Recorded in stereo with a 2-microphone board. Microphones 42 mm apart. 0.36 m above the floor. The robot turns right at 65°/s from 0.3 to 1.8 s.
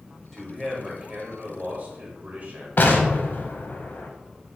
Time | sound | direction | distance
0.3 | a man speaking | 175° left | 1.3 m
2.8 | an explosion | 55° left (ahead or behind) | 0.6 m